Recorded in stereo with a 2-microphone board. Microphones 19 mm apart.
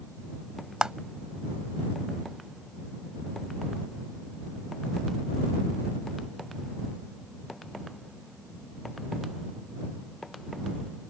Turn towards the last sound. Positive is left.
turn(degrees=-45)  # may be behind; listen again after turning